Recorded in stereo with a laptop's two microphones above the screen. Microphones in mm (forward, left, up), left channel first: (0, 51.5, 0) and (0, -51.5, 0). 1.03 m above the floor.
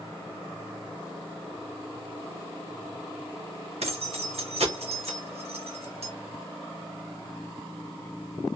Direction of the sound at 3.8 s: 80° right.